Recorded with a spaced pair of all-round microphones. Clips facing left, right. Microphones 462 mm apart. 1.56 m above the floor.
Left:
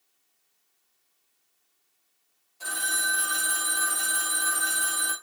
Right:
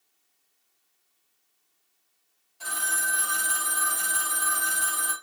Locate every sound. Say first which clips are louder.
2.6 s a phone ringing: left 1 dB; 30° right (ahead or behind), 1.3 m